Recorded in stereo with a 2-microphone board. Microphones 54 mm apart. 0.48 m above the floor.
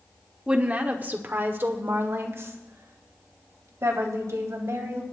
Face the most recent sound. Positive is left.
turn(degrees=-60)  # may be behind; listen again after turning